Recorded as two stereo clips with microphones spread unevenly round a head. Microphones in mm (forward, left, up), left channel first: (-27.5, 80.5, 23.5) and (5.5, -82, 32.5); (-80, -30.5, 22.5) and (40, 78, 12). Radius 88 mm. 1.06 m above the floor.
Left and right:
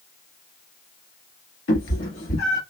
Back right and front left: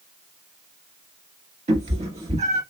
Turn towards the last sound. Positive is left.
turn(degrees=95)